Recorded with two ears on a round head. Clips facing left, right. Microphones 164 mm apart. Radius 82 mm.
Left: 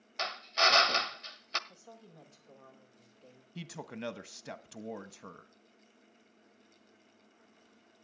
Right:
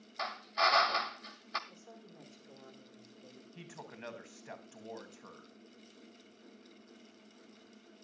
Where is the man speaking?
50° left (ahead or behind), 0.9 m.